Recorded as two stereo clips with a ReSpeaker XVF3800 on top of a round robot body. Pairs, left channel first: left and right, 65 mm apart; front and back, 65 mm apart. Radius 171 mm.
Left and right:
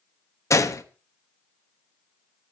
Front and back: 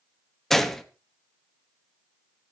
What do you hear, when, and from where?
0.5 s a gunshot: 85° left, 1.5 m